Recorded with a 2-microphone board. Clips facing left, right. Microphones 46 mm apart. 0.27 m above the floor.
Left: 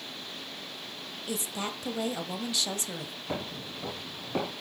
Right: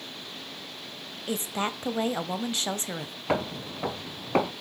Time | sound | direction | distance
1.3 | a woman speaking | 35° right (ahead or behind) | 1.2 m
3.3 | footsteps | 80° right | 1.2 m